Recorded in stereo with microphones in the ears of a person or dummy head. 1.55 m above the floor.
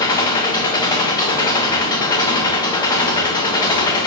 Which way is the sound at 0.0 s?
25° left (ahead or behind).